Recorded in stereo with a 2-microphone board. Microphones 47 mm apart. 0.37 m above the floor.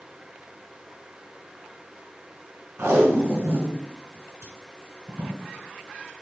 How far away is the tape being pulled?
About 1.7 m.